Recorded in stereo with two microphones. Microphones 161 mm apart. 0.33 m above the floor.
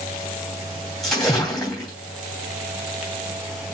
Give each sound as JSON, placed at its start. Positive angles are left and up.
{"t": 1.0, "sound": "a splash", "side_deg": 0, "distance_m": 2.5}